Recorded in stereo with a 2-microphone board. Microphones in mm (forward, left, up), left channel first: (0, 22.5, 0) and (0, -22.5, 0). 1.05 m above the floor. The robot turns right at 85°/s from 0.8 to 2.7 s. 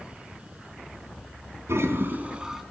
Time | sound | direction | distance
1.7 | a toilet flushing | 85° right | 3.5 m